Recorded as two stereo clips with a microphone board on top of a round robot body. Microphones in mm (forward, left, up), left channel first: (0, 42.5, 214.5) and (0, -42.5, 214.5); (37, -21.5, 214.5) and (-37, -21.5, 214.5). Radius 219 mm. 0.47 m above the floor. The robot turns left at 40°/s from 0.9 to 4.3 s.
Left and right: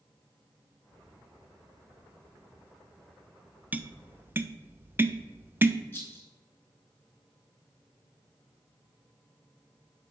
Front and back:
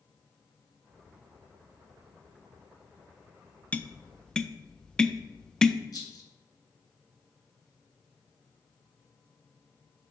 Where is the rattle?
25° left, 1.9 m.